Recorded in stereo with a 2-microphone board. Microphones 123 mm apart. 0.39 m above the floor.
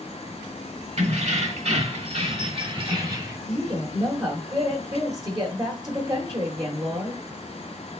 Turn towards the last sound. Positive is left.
turn(degrees=-30)  # may be behind; listen again after turning